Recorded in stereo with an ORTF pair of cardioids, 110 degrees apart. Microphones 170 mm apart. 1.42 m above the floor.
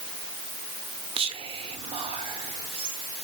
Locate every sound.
1.2 s whispering: 35° right, 0.8 m